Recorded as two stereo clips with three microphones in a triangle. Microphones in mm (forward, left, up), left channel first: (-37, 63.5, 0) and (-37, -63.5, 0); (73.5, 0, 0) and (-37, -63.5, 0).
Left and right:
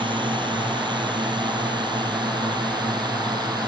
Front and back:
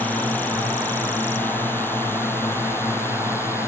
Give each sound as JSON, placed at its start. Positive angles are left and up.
{"t": 0.0, "sound": "a drone", "azimuth_deg": -45}